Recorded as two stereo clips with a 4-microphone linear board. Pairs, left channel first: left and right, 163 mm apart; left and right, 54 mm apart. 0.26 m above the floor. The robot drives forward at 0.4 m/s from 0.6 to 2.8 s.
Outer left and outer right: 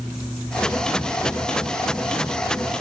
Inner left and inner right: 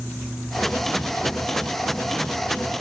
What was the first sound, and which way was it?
Only background noise.